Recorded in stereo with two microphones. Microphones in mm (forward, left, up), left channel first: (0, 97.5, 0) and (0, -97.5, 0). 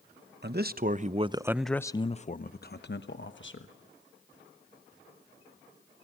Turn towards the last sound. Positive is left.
turn(degrees=70)  # may be behind; listen again after turning